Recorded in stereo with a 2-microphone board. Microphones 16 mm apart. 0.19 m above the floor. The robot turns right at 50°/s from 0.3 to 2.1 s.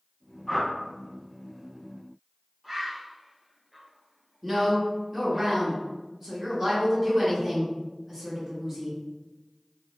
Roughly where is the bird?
Centre.